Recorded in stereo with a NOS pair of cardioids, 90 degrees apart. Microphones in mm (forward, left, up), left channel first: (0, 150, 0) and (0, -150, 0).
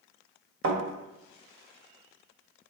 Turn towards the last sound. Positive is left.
turn(degrees=-45)